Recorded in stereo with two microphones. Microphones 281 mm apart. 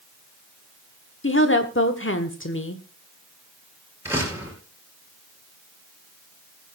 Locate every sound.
1.2 s a woman speaking: 45° left (ahead or behind), 1.4 m
4.0 s a door slam: 10° right (ahead or behind), 5.5 m